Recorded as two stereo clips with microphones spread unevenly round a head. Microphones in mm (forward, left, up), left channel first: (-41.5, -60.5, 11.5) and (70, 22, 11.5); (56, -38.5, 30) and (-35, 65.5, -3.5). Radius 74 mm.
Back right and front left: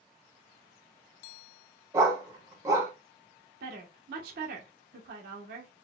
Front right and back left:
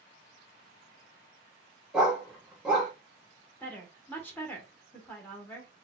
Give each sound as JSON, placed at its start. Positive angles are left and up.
{"t": 1.9, "sound": "a dog barking", "azimuth_deg": 15, "distance_m": 0.8}
{"t": 3.6, "sound": "a woman speaking", "azimuth_deg": 25, "distance_m": 0.9}